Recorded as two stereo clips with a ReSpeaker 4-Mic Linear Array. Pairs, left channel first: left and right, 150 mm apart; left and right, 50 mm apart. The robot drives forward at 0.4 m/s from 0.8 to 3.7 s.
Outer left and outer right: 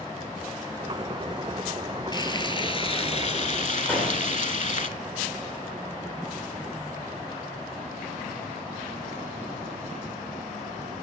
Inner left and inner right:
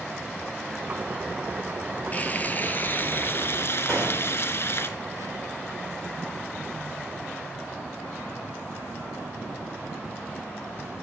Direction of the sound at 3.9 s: 10° left (ahead or behind).